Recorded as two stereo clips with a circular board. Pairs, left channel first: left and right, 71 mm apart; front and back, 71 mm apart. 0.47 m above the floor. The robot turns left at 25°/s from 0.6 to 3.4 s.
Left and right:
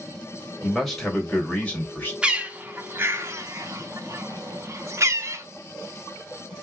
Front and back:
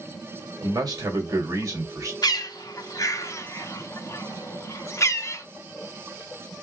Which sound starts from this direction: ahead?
A bird, at 2.2 s.